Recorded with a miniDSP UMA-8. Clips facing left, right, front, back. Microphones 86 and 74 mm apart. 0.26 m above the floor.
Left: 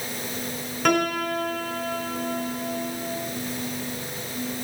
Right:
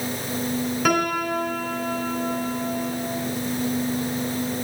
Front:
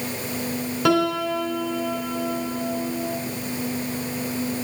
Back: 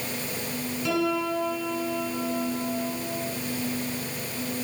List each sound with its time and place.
0.8 s a piano: 5° right, 3 m